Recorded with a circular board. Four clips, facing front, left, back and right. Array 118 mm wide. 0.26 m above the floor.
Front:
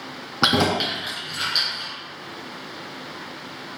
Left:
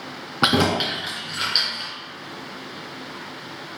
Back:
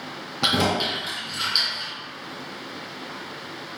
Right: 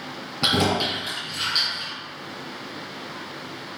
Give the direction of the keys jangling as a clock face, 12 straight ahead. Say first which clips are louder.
Left 3 dB, front 3 dB; 10 o'clock.